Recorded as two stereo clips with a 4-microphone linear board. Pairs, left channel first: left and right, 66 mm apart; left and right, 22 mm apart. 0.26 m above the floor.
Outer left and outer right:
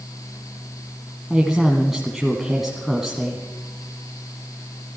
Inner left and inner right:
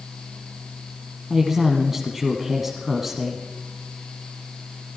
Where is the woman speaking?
5° right (ahead or behind), 1.8 m.